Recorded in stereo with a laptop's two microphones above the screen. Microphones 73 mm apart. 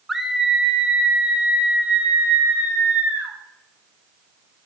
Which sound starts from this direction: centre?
A scream, at 0.1 s.